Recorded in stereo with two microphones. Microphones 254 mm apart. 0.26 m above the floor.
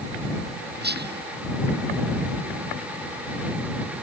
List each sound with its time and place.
0.8 s whispering: 40° right (ahead or behind)